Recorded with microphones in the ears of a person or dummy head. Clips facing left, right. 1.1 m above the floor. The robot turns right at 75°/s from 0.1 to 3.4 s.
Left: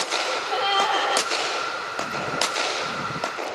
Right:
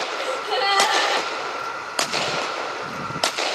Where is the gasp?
85° right, 1.4 m; by 1.3 s 5° right, 1.4 m.